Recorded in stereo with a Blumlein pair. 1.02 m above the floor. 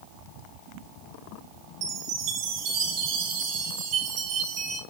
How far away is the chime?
About 2 m.